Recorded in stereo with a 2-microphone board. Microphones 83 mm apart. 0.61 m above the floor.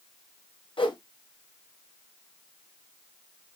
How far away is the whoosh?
About 0.6 m.